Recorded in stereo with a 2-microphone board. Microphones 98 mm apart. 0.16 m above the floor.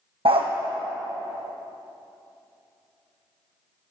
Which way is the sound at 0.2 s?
70° right (ahead or behind).